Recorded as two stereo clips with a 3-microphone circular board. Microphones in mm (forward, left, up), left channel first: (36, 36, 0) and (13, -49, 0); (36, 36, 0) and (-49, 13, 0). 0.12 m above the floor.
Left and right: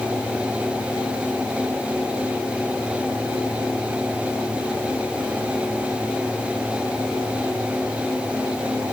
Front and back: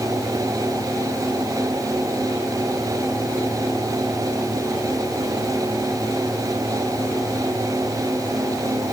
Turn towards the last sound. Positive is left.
No sound to turn to.